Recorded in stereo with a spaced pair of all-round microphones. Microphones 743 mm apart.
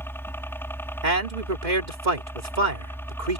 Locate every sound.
0.0 s a helicopter: 5° left (ahead or behind)
1.0 s a man speaking: 75° right (ahead or behind)